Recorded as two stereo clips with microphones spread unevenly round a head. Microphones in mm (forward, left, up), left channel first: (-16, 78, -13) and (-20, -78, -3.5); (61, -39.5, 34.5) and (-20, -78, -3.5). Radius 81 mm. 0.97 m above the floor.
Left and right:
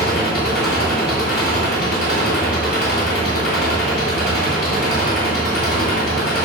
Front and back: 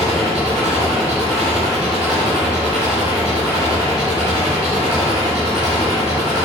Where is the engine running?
115° left, 3.5 m.